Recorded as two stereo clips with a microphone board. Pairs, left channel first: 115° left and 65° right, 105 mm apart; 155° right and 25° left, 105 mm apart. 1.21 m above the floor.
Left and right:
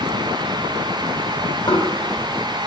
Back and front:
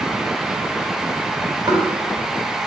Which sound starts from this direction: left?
Knocking, at 1.7 s.